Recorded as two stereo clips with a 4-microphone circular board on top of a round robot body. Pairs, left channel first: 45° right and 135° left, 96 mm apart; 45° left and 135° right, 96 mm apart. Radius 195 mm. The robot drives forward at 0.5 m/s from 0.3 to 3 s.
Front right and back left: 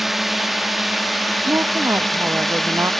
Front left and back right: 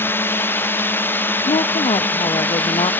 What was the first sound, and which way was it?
A drone, 50° left.